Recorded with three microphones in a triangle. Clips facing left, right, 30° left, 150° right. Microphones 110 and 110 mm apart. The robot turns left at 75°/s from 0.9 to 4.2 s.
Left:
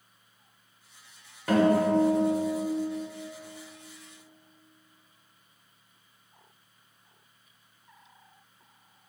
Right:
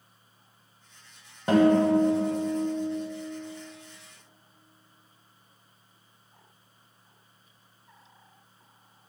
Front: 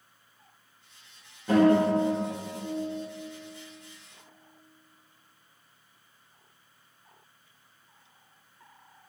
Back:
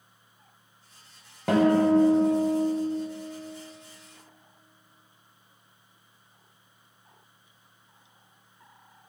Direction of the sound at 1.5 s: 155° right.